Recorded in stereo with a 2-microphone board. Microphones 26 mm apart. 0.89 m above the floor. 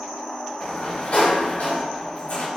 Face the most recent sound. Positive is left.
turn(degrees=70)  # may be behind; listen again after turning